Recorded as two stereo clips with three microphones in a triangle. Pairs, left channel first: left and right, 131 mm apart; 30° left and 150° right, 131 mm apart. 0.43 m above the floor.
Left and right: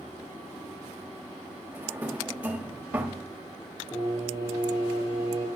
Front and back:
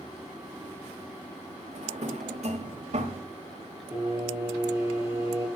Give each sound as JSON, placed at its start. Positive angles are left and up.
{"t": 1.7, "sound": "a drawer", "azimuth_deg": -170, "distance_m": 1.2}
{"t": 3.9, "sound": "singing", "azimuth_deg": 140, "distance_m": 5.0}